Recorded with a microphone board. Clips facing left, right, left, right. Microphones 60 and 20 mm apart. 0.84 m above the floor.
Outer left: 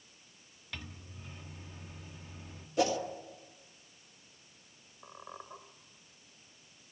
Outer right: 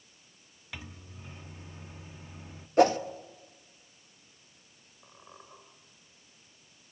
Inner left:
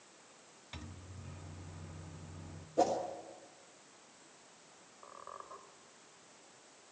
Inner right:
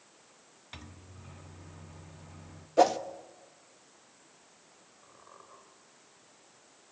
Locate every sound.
0.7 s a microwave: 15° right (ahead or behind), 1.2 m
2.8 s a whoosh: 50° right (ahead or behind), 1.3 m
5.0 s a squeak: 30° left (ahead or behind), 3 m